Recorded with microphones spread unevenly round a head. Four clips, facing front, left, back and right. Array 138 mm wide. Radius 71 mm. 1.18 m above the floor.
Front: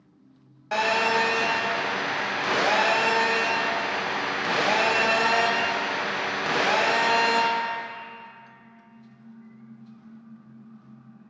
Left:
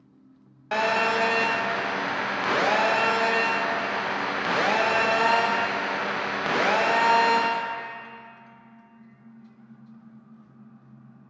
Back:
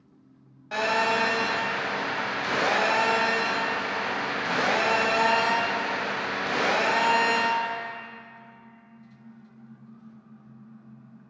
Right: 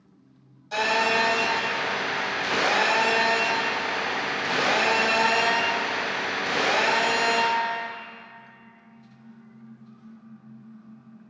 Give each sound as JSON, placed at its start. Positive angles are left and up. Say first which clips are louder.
{"t": 0.7, "sound": "a phone buzzing", "louder": "even, front 2 dB", "azimuth_deg": 55, "distance_m": 0.9}